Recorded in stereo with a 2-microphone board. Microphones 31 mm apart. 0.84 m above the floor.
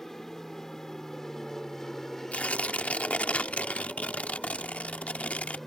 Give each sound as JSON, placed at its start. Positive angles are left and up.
{"t": 0.0, "sound": "an aircraft", "side_deg": 15}
{"t": 2.3, "sound": "tearing paper", "side_deg": 50}